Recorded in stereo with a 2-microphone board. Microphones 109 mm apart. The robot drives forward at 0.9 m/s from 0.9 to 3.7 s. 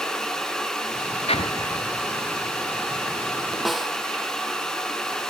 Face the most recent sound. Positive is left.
turn(degrees=0)  # may be behind; listen again after turning